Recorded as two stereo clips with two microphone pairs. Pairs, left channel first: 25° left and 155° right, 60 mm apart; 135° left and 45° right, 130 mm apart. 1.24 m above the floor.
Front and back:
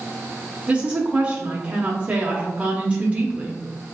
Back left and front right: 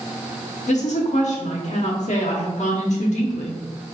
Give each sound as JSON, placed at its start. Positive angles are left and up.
{"t": 0.7, "sound": "a woman speaking", "azimuth_deg": 140, "distance_m": 0.5}